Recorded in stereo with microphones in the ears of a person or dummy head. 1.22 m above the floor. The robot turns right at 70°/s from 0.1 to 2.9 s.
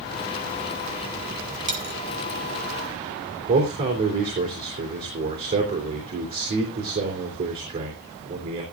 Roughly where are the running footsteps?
No running footsteps in this recording.